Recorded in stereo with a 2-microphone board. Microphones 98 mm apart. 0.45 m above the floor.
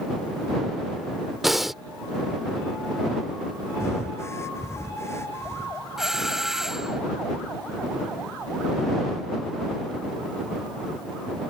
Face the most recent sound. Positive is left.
turn(degrees=-5)  # may be behind; listen again after turning